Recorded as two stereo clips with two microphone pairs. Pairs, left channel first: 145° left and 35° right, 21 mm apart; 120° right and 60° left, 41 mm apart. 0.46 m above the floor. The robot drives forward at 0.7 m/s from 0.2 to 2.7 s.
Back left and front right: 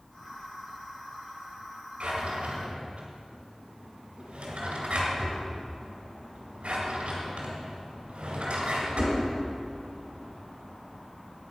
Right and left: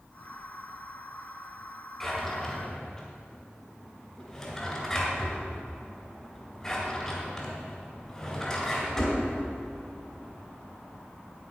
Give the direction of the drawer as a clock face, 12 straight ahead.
1 o'clock.